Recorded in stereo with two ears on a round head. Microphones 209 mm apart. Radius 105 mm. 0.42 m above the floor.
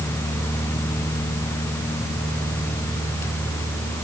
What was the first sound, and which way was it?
Only background noise.